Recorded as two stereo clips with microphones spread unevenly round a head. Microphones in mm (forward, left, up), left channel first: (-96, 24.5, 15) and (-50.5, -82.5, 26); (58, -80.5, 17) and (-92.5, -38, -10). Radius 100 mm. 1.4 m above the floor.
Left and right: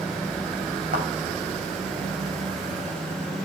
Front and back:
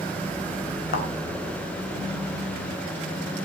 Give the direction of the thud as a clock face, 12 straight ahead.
1 o'clock.